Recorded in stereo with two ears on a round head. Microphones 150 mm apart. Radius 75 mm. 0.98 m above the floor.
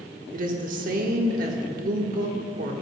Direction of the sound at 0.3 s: 55° right (ahead or behind).